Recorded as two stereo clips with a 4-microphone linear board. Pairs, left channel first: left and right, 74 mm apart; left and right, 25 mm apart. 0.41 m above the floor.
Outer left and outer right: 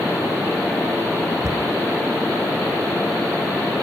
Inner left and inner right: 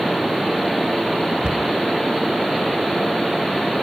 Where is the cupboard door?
50° right (ahead or behind), 0.9 m.